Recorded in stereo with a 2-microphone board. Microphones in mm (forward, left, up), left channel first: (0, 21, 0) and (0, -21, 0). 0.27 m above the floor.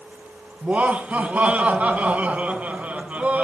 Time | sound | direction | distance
0.6 | laughter | 35° right (ahead or behind) | 3 m